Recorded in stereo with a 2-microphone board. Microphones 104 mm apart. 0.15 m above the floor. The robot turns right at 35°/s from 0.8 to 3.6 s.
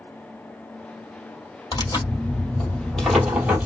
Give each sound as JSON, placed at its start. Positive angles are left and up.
{"t": 1.7, "sound": "tearing paper", "azimuth_deg": 130, "distance_m": 2.0}